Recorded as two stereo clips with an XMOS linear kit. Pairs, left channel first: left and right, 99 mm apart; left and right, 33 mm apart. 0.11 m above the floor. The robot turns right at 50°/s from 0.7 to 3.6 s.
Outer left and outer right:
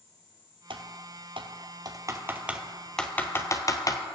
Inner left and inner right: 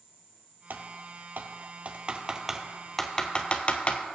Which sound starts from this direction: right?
Typing on a keyboard, at 0.7 s.